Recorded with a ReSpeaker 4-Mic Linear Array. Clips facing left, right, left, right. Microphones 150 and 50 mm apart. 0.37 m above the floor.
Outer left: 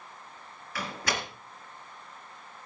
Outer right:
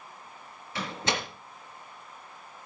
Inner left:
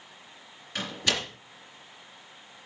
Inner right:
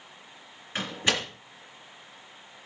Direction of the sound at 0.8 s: 25° right (ahead or behind).